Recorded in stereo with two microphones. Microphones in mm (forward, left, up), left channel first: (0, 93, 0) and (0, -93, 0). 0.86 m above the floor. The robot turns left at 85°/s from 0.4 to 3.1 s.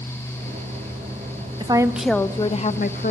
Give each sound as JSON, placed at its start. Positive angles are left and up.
{"t": 1.6, "sound": "a woman speaking", "azimuth_deg": -145, "distance_m": 0.5}